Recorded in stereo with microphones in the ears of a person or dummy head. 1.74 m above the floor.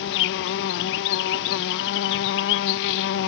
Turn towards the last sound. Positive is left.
turn(degrees=60)  # may be behind; listen again after turning